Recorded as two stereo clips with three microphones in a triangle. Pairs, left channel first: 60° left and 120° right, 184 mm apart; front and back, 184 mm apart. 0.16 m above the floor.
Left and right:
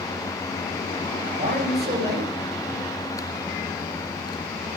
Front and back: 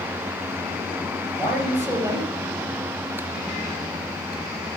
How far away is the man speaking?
About 2.5 m.